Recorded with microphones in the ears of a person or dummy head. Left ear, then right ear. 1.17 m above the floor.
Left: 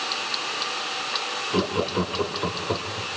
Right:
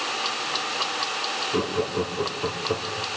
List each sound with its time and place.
1.5 s laughter: 75° left (ahead or behind), 2.5 m